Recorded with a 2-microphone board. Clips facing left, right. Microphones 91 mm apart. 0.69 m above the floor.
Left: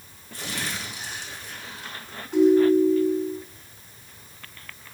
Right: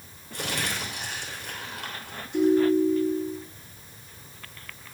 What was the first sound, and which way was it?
Crumpling, 70° right (ahead or behind).